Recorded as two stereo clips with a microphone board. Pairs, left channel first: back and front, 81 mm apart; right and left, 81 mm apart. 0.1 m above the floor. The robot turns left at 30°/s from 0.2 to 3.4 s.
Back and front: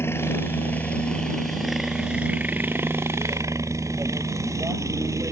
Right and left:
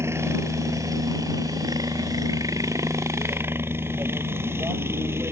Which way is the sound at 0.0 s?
130° left.